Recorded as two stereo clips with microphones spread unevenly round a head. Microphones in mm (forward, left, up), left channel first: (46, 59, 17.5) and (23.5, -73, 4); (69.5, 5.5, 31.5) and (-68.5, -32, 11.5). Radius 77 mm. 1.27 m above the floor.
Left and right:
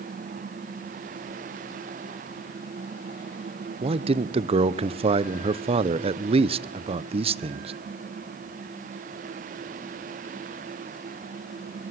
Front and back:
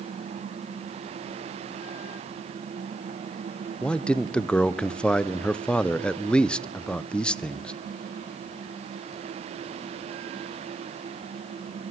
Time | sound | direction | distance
3.8 | a man speaking | 75° right | 0.6 m